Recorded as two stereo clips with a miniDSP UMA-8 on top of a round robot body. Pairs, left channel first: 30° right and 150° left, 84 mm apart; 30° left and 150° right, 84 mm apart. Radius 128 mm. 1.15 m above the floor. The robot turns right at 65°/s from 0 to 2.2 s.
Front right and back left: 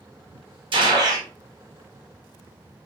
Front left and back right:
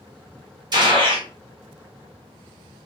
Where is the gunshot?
175° left, 0.9 m; by 1.3 s 150° right, 0.9 m.